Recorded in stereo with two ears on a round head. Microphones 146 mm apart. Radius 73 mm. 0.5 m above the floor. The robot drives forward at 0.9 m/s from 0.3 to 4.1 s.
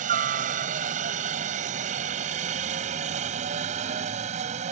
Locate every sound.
0.0 s a helicopter: 50° right (ahead or behind); by 4.7 s 45° right (ahead or behind)